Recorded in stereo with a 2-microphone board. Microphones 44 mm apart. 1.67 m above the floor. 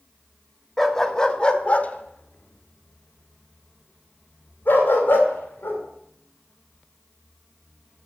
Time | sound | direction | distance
0.8 | a dog barking | centre (ahead or behind) | 1.3 m